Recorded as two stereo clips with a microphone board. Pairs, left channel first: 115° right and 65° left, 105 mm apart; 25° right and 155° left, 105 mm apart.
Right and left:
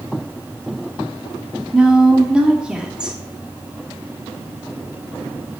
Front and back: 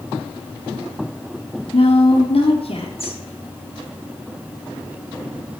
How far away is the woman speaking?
About 1.8 m.